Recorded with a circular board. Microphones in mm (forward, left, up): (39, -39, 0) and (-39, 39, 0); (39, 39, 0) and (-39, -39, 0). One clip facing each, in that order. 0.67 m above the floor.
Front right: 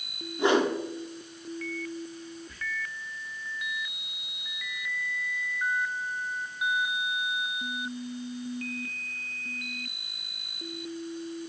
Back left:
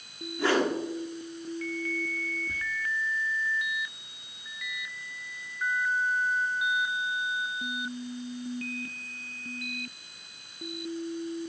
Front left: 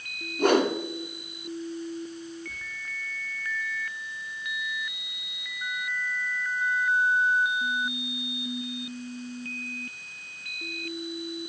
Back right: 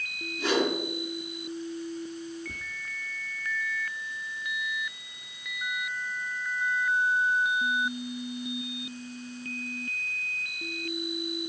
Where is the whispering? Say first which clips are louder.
Back left 7 dB, back right 1 dB; 160° right, 1.0 m.